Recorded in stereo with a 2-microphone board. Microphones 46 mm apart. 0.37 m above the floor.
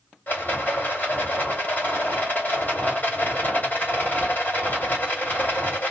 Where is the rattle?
40° left (ahead or behind), 2 m.